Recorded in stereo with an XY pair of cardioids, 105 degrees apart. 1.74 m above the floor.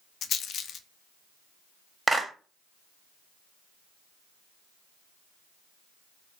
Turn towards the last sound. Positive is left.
turn(degrees=-15)